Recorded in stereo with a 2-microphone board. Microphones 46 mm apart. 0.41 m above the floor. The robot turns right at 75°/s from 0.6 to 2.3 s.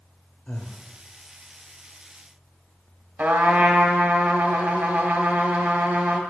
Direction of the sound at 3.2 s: 45° right (ahead or behind).